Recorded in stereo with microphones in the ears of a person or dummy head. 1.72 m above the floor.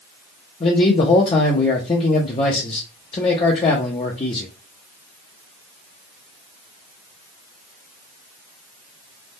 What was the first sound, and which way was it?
A man speaking, 25° left (ahead or behind).